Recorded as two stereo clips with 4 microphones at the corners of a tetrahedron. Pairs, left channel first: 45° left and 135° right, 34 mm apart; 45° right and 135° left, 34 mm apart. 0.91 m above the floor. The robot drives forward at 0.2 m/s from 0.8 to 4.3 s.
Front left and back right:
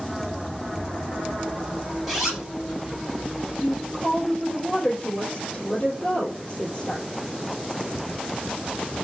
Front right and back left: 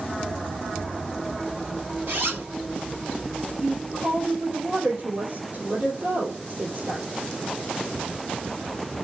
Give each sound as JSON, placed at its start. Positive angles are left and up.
{"t": 2.1, "sound": "a zipper", "azimuth_deg": 140, "distance_m": 5.5}
{"t": 3.6, "sound": "a woman speaking", "azimuth_deg": 100, "distance_m": 3.5}